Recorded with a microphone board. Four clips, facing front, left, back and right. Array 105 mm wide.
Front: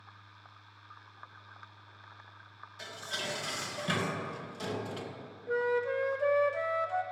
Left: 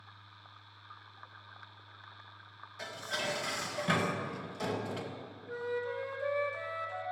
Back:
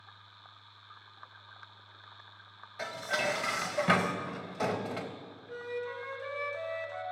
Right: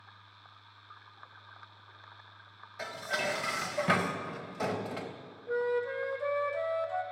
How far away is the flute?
About 0.6 m.